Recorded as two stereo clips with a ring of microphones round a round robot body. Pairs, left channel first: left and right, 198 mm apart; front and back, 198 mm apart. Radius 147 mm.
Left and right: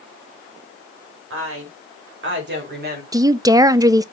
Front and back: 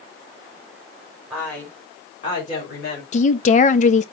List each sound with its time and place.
1.3 s a woman speaking: 95° right, 3 m; by 3.0 s 50° right, 3.5 m
3.1 s a woman speaking: 25° right, 0.5 m